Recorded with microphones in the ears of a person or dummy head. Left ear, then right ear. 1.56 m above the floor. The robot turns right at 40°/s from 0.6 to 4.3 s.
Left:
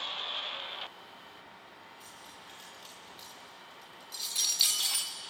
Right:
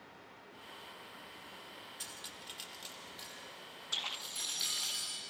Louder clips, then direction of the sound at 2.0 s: Right 5 dB; 50° right (ahead or behind).